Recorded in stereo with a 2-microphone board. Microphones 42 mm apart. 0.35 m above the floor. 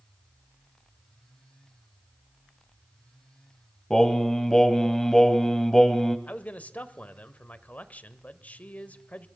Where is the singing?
10° left (ahead or behind), 1.4 m.